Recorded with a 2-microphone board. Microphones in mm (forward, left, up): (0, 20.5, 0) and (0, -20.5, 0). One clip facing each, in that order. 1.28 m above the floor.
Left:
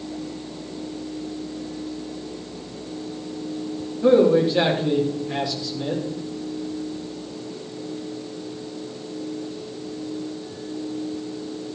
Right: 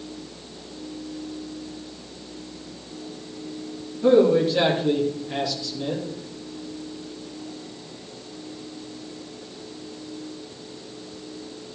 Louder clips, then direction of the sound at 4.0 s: Left 1 dB; 15° left (ahead or behind).